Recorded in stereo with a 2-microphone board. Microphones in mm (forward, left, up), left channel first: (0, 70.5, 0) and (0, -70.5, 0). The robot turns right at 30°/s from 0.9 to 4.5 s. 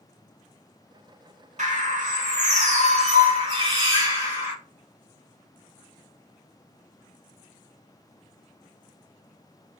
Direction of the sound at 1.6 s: 105° right.